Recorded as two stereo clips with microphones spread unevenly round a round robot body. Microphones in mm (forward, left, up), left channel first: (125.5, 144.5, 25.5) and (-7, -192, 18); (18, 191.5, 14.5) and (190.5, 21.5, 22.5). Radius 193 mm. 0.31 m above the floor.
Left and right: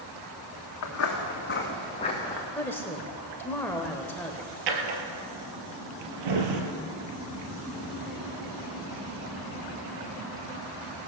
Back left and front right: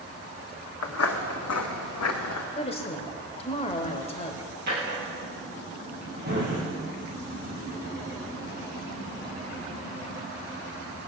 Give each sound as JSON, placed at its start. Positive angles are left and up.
{"t": 0.8, "sound": "footsteps", "azimuth_deg": 120, "distance_m": 2.0}
{"t": 2.5, "sound": "a woman speaking", "azimuth_deg": 150, "distance_m": 1.0}
{"t": 4.7, "sound": "a drawer", "azimuth_deg": -110, "distance_m": 1.9}